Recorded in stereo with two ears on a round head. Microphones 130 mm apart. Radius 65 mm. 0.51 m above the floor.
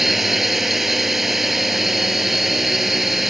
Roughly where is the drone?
Centre.